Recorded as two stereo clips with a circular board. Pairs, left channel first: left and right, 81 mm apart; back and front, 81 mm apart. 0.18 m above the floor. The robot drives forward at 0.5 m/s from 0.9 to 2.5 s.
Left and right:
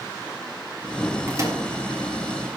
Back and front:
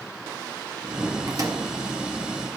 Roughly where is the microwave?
Ahead right.